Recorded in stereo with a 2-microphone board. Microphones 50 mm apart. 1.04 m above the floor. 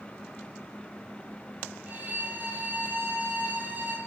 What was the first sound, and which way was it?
A violin, 35° right (ahead or behind).